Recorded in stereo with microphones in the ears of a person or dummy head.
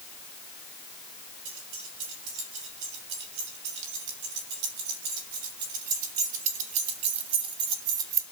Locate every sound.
1.4 s keys jangling: 70° right (ahead or behind), 4.5 m; by 8.2 s 15° right (ahead or behind), 1.8 m